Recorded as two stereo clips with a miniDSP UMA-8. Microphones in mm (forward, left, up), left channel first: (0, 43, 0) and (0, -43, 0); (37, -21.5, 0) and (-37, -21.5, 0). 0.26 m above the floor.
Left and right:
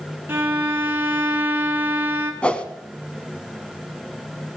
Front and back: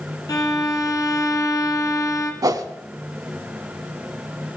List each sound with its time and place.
0.3 s a violin: 30° right, 1.5 m
2.4 s a whoosh: 165° left, 0.8 m